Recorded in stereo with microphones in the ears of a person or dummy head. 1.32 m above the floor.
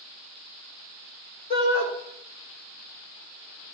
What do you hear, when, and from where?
1.5 s a shout: 45° left (ahead or behind), 4.5 m